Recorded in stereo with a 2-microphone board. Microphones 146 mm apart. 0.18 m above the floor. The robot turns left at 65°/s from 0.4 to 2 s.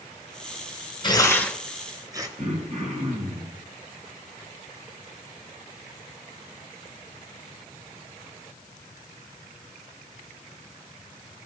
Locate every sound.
1.0 s tearing paper: 30° left (ahead or behind), 1.1 m; by 2.3 s 25° right (ahead or behind), 1.1 m
2.4 s throat clearing: 50° right (ahead or behind), 3.5 m